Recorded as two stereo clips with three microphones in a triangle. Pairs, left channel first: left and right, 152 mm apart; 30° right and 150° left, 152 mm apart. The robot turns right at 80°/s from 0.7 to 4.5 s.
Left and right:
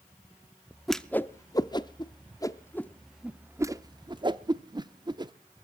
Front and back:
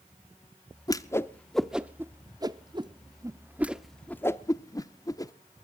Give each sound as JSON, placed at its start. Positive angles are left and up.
{"t": 0.9, "sound": "a whoosh", "azimuth_deg": 0, "distance_m": 0.7}